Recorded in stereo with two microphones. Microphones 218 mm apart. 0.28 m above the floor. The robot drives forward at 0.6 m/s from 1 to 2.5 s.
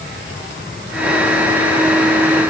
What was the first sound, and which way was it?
Only background noise.